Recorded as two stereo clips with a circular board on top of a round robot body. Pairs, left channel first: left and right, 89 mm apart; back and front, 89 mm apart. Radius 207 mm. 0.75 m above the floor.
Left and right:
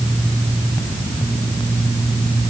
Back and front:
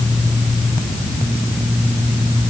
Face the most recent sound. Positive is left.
No sound to turn to.